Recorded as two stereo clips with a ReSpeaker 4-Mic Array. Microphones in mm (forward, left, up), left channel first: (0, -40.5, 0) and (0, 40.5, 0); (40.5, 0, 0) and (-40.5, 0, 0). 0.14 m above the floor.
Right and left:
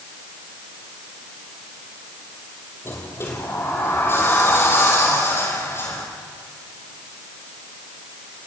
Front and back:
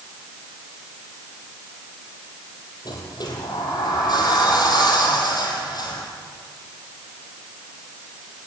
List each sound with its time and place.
2.9 s a sliding door: 30° right, 5 m